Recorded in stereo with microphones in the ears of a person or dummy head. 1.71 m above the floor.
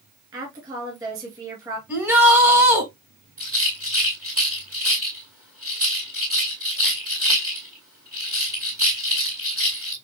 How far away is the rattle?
About 2 m.